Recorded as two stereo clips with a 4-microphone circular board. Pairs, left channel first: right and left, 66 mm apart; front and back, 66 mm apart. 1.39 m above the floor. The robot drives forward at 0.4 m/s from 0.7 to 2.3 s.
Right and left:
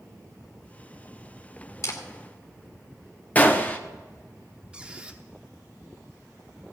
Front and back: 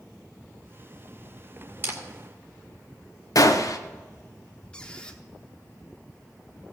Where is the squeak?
45° left, 0.9 m.